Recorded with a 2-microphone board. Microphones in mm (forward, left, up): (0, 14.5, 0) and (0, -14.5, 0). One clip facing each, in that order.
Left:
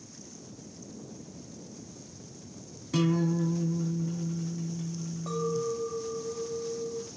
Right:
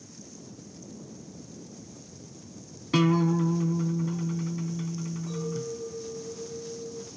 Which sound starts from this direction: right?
A guitar, at 2.9 s.